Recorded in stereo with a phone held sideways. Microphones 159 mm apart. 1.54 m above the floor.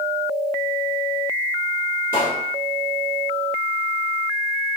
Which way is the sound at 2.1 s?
65° right (ahead or behind).